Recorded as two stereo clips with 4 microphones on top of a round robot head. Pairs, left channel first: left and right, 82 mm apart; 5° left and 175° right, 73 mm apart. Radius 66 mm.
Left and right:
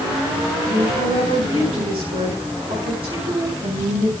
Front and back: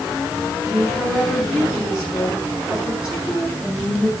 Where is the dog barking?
No dog barking in this recording.